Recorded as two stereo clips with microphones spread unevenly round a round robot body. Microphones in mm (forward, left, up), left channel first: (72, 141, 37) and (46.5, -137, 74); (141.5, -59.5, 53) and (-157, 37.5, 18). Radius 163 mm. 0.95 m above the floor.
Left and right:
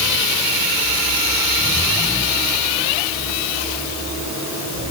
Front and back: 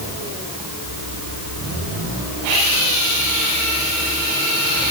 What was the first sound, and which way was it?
Only background noise.